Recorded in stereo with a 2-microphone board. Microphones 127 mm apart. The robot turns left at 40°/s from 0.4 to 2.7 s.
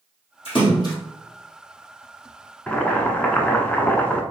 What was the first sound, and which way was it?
A splash, 45° left (ahead or behind).